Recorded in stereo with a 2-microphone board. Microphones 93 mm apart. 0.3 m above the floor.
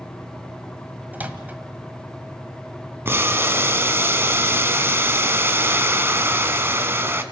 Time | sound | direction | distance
1.1 | a microwave | 20° right (ahead or behind) | 1.6 m
3.0 | boiling | 25° right (ahead or behind) | 1.3 m